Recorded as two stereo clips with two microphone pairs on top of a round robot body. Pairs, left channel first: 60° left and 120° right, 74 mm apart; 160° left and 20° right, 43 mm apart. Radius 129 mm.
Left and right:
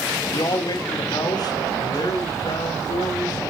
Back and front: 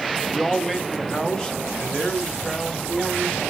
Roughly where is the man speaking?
Left.